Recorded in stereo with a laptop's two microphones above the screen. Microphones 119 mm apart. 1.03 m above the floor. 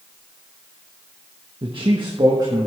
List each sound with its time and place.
1.6 s a man speaking: 50° right (ahead or behind), 1.4 m; by 2.7 s 30° right (ahead or behind), 2.5 m